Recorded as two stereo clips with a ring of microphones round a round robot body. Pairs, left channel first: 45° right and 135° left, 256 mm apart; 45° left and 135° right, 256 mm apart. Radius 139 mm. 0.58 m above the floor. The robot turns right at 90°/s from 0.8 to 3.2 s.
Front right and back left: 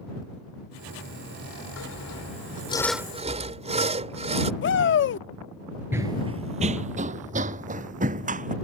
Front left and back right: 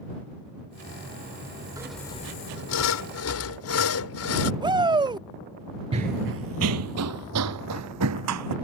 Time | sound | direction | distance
1.8 | sawing | 60° right | ?
4.6 | a shout | 65° right | ?
5.9 | running footsteps | 160° right | ?